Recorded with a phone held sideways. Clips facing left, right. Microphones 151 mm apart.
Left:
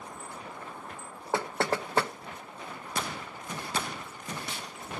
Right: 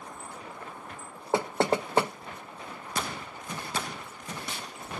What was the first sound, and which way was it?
Knocking, 20° right (ahead or behind).